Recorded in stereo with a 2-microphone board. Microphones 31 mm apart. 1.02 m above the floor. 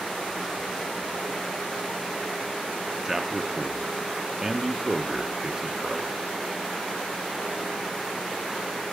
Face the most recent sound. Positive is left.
turn(degrees=-10)  # may be behind; listen again after turning